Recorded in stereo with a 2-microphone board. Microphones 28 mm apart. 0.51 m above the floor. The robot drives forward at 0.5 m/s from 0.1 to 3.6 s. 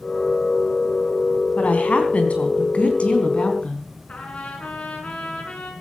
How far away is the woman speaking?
About 3.5 m.